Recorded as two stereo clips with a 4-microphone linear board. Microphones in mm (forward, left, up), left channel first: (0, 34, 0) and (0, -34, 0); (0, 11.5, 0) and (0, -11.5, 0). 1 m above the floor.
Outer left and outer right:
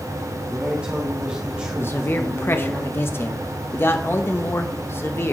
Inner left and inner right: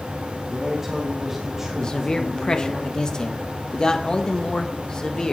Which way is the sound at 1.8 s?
35° left (ahead or behind).